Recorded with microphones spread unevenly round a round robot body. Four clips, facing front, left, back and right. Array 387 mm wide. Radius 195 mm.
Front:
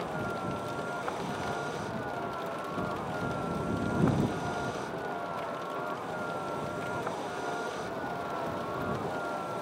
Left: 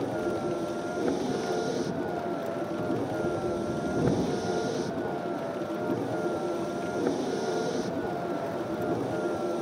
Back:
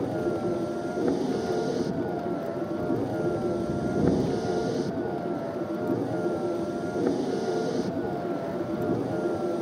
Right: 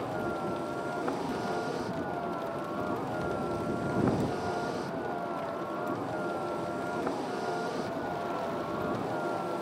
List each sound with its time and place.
0.0 s a vehicle: 165° left